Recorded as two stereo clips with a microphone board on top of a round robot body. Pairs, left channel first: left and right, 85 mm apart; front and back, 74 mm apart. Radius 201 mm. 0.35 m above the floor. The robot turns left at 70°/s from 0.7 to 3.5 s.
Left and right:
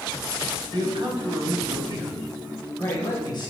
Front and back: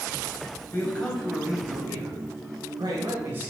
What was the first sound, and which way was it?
A man speaking, 55° right.